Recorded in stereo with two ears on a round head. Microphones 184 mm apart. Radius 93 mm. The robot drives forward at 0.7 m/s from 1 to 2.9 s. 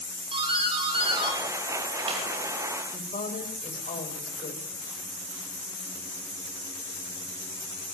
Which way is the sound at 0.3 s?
25° right (ahead or behind).